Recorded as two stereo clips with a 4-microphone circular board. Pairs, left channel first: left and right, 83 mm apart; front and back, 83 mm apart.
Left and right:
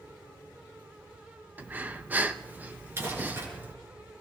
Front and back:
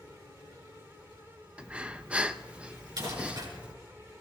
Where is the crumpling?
150° right, 6 m.